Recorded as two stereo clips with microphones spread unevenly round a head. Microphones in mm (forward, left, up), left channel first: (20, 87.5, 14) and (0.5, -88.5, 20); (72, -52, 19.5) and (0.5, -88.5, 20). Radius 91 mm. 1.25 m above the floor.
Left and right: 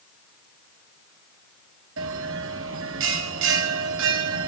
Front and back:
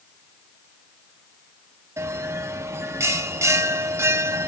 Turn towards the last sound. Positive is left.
turn(degrees=-100)